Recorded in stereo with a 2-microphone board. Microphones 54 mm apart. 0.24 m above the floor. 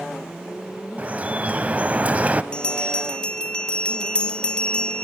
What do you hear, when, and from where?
1.0 s dripping: 30° right (ahead or behind), 0.5 m
2.5 s a bell: 15° left (ahead or behind), 0.5 m